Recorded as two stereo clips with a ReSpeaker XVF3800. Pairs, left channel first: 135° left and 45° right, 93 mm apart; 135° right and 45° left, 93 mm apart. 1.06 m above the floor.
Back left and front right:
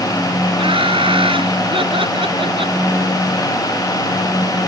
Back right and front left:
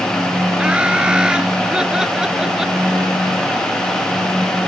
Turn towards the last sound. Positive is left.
turn(degrees=-40)